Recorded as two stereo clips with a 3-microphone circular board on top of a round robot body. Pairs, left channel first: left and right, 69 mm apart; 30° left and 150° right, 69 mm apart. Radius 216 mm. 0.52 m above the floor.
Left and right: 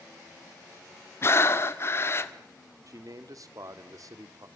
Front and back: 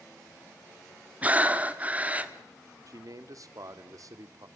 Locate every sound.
1.2 s breathing: 140° left, 1.3 m
2.9 s a man speaking: 120° right, 1.8 m